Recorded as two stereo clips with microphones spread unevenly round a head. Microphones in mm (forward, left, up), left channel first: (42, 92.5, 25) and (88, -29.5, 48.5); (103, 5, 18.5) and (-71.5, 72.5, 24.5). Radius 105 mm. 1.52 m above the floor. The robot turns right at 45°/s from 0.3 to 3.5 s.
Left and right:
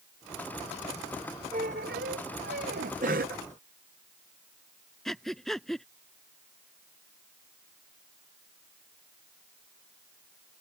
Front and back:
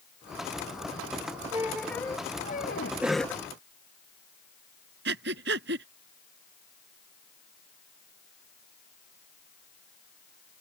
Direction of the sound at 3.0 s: 120° right.